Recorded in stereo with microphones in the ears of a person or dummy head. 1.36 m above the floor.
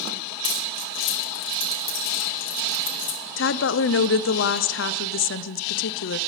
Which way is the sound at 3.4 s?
60° left (ahead or behind).